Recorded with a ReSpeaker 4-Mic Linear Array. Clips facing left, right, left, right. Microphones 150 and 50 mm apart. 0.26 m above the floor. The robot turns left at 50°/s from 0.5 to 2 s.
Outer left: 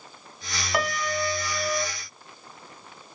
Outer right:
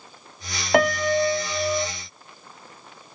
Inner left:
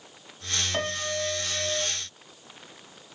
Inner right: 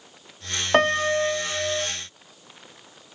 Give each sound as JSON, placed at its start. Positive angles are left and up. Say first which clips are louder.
{"t": 0.7, "sound": "a piano", "louder": "outer right 9 dB, inner right 13 dB", "azimuth_deg": -110, "distance_m": 0.6}